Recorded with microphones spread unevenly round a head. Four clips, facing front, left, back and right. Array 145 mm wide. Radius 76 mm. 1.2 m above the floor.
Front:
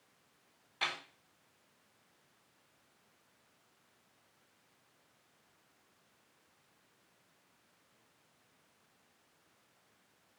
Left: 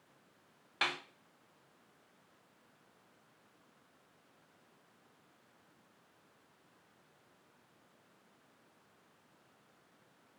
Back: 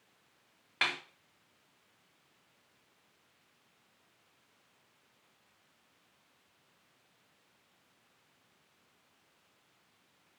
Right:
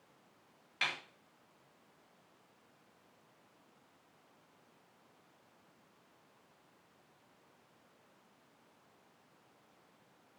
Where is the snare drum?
140° left, 4 m.